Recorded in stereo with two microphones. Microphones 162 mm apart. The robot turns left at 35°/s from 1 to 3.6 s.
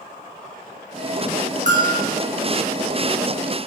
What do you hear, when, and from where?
1.7 s a bell: 50° right (ahead or behind), 2.5 m; by 2.0 s 65° right (ahead or behind), 2.5 m